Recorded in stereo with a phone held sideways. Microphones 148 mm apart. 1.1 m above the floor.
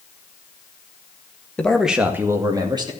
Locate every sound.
1.6 s a man speaking: 10° left (ahead or behind), 1.8 m; by 2.9 s 35° right (ahead or behind), 3 m